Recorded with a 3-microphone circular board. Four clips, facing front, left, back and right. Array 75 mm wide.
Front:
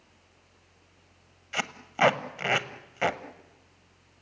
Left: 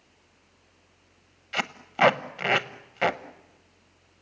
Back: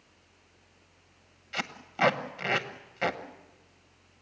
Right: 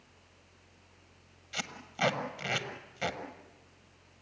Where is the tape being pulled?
70° left, 0.9 m.